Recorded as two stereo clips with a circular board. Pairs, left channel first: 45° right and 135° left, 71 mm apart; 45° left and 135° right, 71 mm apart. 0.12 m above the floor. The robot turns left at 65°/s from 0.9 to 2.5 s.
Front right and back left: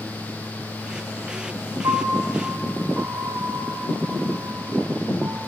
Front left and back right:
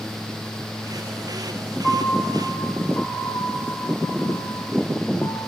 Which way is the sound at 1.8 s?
120° left.